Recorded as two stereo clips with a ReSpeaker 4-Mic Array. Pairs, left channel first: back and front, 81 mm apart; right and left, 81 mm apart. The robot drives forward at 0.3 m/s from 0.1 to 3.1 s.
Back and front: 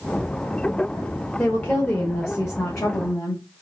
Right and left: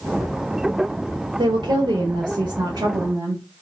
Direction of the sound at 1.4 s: 105° left.